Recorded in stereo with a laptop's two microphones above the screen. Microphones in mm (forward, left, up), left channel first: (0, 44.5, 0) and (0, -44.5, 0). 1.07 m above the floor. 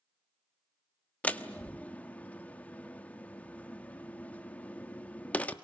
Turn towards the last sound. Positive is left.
turn(degrees=15)  # may be behind; listen again after turning